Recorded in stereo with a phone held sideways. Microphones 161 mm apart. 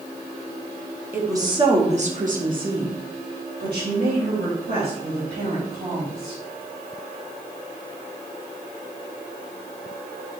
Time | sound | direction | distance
1.1 | a woman speaking | 15° right (ahead or behind) | 1.5 m